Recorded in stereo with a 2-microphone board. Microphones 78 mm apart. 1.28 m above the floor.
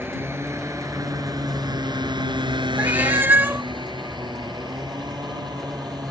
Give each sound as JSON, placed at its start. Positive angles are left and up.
{"t": 0.0, "sound": "a motorcycle", "side_deg": -30}
{"t": 2.8, "sound": "a cat meowing", "side_deg": -25}